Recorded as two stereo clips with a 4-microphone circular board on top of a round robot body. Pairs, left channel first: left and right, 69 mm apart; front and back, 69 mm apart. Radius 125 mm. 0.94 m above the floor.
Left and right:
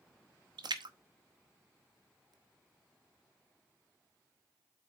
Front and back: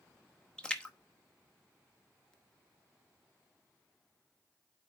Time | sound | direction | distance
0.6 | a splash | 75° right | 0.8 m